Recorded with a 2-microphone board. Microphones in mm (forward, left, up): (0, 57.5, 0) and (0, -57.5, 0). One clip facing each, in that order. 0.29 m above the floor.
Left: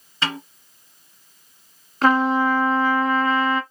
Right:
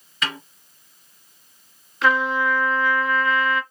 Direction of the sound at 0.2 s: 30° left (ahead or behind).